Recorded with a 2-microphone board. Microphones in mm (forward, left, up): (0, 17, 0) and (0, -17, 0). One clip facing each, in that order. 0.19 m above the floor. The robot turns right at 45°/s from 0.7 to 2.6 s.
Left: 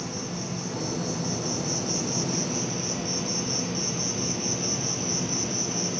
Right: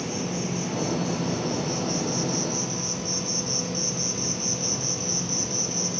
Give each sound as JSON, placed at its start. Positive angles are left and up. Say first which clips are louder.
{"t": 0.0, "sound": "an insect", "louder": "right 4 dB", "azimuth_deg": -70, "distance_m": 1.4}